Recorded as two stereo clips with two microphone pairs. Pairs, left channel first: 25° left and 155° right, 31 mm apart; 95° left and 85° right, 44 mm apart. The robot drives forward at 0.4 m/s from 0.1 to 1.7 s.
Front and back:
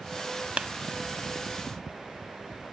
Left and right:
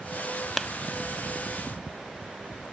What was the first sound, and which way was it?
A clap, 175° right.